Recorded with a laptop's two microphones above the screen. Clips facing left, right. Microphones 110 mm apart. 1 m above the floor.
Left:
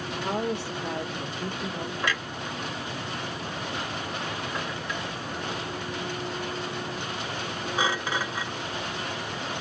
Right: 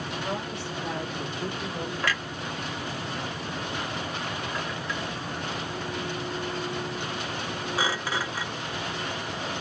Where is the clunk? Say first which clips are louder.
Even; 20° left (ahead or behind), 1.7 m.